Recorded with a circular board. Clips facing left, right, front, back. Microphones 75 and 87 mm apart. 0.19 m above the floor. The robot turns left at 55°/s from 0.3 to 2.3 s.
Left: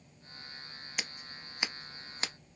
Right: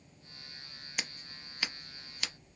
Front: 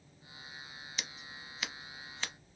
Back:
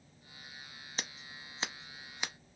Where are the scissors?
Straight behind, 0.7 m; by 2.3 s 105° left, 0.7 m.